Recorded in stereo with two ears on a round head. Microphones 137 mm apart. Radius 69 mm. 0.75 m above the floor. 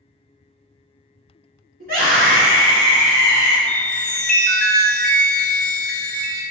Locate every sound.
1.8 s a scream: 65° right (ahead or behind), 1.9 m; by 3.6 s 55° right (ahead or behind), 2.5 m
3.7 s a chime: 10° left (ahead or behind), 0.9 m